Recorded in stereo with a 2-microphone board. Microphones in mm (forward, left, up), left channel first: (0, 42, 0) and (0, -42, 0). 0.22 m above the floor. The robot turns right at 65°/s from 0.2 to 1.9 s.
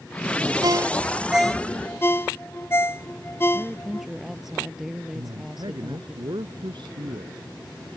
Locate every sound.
0.6 s a ringtone: 55° right (ahead or behind); by 4.1 s 30° left (ahead or behind)
3.5 s a woman speaking: 5° right (ahead or behind)
5.1 s a man speaking: 65° right (ahead or behind)